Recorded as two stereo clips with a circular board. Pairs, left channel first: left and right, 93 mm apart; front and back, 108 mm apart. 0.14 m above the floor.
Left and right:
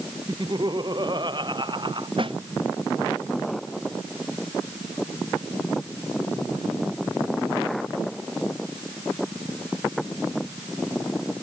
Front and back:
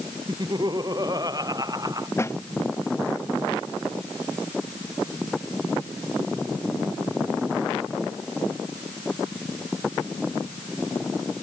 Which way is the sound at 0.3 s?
130° right.